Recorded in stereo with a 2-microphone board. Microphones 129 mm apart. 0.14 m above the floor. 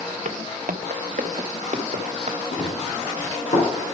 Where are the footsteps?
70° right (ahead or behind), 0.8 m; by 2.4 s 55° right (ahead or behind), 1.3 m.